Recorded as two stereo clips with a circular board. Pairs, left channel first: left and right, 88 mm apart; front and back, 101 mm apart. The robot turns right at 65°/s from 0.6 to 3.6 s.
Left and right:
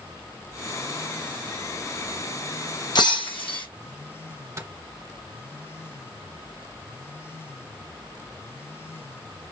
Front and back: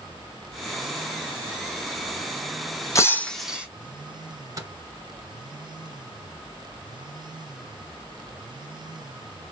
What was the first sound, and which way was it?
Breaking glass, 55° left.